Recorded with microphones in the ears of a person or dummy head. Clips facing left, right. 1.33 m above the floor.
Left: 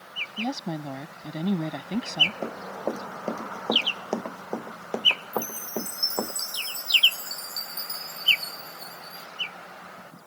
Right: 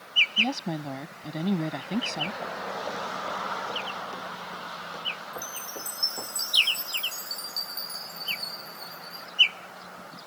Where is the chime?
5° left (ahead or behind).